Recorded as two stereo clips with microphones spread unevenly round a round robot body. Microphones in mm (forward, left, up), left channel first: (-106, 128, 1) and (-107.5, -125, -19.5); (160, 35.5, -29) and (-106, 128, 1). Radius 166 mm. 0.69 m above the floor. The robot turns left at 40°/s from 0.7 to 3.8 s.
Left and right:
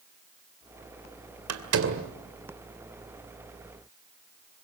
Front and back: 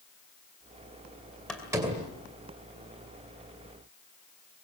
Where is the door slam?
105° right, 2 m; by 2.1 s 130° right, 2 m.